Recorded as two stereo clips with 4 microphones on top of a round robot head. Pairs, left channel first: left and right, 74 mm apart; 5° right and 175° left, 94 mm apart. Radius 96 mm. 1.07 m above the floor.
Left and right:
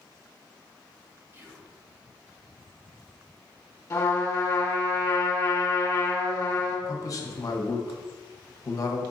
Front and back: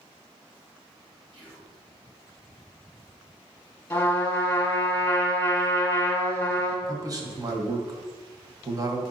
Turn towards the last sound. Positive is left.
turn(degrees=130)